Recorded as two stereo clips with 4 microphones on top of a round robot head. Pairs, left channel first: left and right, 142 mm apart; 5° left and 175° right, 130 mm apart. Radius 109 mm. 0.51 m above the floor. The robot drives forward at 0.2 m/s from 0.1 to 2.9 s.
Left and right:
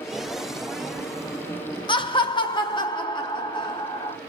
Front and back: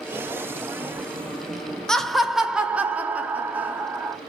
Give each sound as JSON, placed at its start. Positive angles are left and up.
{"t": 1.9, "sound": "laughter", "azimuth_deg": 90, "distance_m": 0.8}